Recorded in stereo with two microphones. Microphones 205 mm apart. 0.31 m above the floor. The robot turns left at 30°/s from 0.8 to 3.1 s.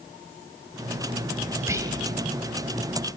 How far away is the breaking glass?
I don't hear breaking glass.